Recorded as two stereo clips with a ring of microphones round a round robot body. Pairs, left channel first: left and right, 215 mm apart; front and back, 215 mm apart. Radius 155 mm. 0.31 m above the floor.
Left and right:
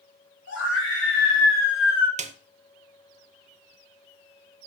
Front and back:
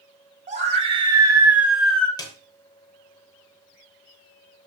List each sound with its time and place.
0.5 s a scream: 125° left, 2.5 m; by 2.1 s 80° left, 2 m
2.2 s a snare drum: 60° right, 0.6 m